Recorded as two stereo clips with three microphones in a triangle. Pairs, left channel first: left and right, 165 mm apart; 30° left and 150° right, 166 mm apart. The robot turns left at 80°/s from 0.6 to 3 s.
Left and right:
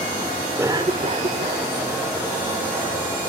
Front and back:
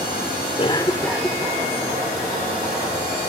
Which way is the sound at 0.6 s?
20° right.